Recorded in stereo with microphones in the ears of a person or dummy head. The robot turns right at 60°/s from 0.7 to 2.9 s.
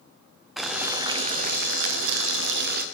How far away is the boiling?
About 0.6 m.